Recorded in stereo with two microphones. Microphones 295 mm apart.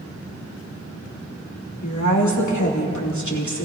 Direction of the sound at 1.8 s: 85° left.